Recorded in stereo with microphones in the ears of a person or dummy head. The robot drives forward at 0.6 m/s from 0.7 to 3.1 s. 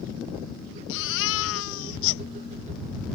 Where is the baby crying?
65° left (ahead or behind); by 2.2 s 60° left (ahead or behind).